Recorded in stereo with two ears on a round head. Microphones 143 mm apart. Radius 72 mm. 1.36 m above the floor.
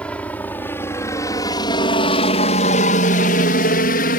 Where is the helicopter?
10° left (ahead or behind); by 4.2 s 60° left (ahead or behind).